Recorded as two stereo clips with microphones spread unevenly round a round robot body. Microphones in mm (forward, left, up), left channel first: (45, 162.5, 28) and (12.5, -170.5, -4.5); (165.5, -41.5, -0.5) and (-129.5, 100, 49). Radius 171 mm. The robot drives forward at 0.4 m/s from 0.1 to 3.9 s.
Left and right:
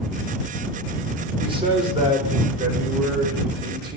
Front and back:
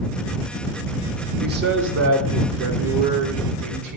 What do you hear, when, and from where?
1.4 s a man speaking: 150° right, 0.8 m; by 4.0 s 170° right, 1.6 m